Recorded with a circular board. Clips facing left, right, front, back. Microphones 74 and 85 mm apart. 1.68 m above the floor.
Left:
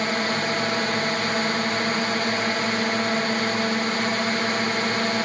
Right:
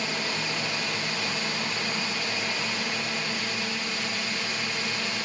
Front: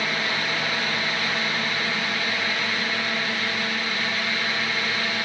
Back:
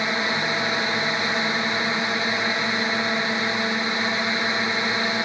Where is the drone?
115° left.